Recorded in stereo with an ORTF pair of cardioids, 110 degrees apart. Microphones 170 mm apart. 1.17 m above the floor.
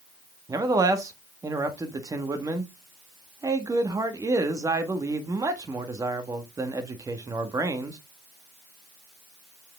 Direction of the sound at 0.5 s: 20° right.